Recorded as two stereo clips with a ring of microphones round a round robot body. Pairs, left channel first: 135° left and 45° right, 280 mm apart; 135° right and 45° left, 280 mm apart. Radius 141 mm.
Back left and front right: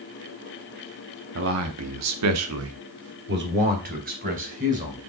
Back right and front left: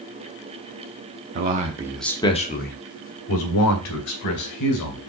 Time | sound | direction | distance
1.4 | a man speaking | 5° right | 1.0 m